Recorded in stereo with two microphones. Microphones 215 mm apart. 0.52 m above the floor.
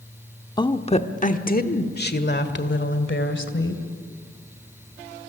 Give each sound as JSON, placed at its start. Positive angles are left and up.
{"t": 0.6, "sound": "a woman speaking", "side_deg": 20, "distance_m": 1.0}